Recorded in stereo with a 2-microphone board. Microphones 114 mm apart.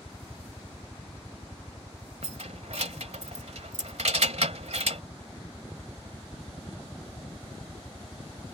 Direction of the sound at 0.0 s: 20° left (ahead or behind).